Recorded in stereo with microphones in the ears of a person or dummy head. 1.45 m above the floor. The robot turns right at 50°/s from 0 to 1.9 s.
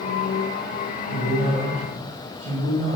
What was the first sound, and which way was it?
A man speaking, 170° right.